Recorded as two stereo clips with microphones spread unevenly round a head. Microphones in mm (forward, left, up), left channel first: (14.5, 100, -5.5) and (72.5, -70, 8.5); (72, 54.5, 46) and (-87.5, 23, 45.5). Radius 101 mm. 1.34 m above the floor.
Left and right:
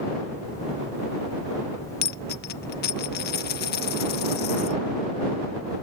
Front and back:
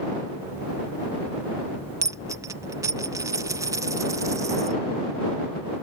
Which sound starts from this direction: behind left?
A dropped coin, at 2.0 s.